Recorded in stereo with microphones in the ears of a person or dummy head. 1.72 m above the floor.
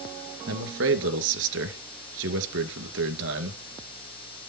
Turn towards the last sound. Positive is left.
turn(degrees=-75)  # may be behind; listen again after turning